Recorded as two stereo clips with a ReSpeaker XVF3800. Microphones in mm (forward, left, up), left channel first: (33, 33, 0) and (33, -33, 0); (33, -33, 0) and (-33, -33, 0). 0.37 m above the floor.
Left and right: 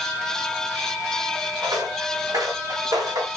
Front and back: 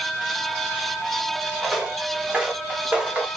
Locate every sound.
1.6 s footsteps: 100° right, 3 m; by 3.3 s 105° right, 1.9 m